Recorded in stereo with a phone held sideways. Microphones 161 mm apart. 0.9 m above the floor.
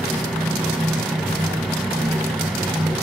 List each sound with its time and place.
0.0 s a fan: centre (ahead or behind), 2 m